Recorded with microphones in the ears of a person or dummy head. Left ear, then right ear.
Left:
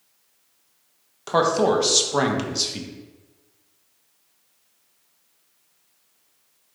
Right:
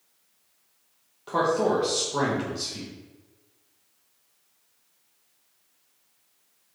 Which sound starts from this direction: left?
A man speaking, at 1.3 s.